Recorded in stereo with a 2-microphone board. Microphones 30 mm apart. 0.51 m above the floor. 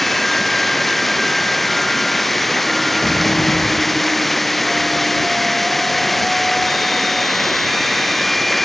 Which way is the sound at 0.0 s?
5° left (ahead or behind).